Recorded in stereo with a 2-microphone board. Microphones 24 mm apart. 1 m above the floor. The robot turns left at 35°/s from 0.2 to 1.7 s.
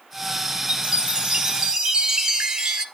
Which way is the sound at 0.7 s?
95° right.